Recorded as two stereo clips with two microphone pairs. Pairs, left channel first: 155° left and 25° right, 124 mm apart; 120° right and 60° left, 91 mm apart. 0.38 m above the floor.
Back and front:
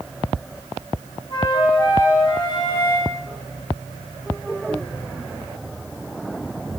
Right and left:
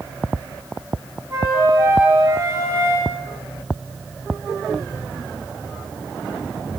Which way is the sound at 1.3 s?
110° left.